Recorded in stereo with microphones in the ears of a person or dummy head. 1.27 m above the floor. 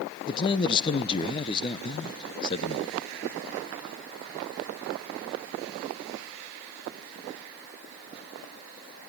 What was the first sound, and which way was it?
A man speaking, 25° left (ahead or behind).